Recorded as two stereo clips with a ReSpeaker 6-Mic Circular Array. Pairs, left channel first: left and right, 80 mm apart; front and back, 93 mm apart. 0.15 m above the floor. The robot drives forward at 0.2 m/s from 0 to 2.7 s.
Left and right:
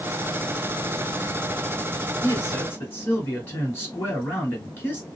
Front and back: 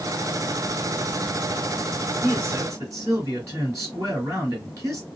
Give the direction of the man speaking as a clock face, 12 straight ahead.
7 o'clock.